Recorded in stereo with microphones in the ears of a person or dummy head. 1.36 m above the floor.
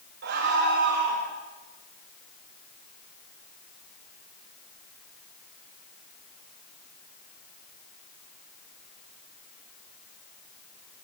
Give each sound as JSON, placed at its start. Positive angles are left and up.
{"t": 0.2, "sound": "a scream", "side_deg": -55, "distance_m": 4.0}